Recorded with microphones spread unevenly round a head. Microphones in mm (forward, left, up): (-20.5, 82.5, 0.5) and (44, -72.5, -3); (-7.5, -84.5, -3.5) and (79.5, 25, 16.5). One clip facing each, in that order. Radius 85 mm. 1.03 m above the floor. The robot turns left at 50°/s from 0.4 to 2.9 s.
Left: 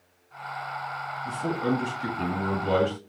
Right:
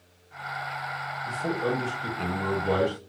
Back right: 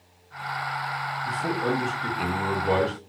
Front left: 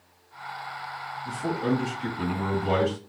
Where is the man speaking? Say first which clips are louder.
Left 1 dB, front left 1 dB; 140° left, 2.5 m; by 3.0 s 60° left, 2.5 m.